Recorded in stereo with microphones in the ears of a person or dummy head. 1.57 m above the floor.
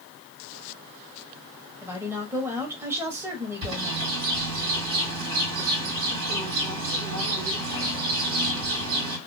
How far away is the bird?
About 1.7 m.